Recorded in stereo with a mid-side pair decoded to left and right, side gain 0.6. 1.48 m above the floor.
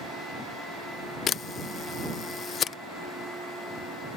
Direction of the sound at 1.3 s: 45° left.